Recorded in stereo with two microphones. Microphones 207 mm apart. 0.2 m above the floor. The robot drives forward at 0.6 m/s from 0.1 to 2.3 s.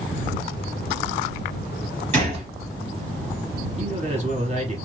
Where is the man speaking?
30° right (ahead or behind), 1.2 m.